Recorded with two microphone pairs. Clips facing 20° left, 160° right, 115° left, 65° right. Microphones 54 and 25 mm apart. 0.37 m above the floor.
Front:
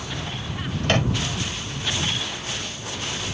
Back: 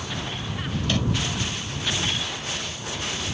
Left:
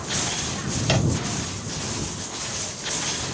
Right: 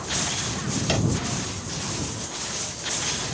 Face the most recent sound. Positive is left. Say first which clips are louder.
# front 4 dB, left 2 dB
turn(degrees=40)